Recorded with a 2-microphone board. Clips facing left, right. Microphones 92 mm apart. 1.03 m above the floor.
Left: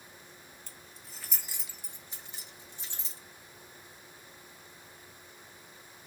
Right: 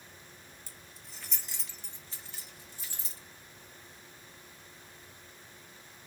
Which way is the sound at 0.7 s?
10° right (ahead or behind).